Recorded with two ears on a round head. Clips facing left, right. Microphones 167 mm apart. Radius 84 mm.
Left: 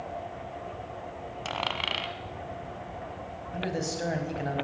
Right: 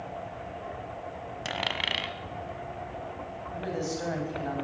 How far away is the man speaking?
About 5.5 m.